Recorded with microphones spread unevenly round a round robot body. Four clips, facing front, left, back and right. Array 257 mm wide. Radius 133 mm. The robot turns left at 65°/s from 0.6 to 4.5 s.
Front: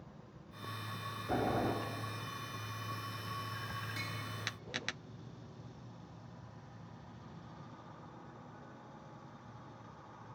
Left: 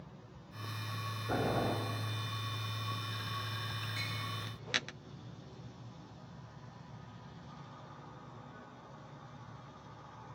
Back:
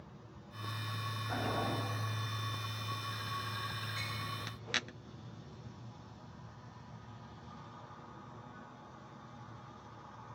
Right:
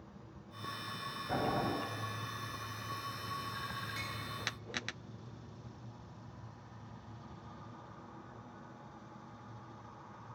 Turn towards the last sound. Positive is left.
turn(degrees=-75)